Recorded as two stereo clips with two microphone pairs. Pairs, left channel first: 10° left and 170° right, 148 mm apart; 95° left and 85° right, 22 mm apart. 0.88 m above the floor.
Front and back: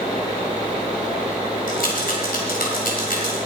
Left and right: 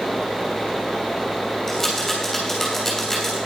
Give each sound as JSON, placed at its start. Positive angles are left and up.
{"t": 1.7, "sound": "a rattle", "azimuth_deg": 25, "distance_m": 3.0}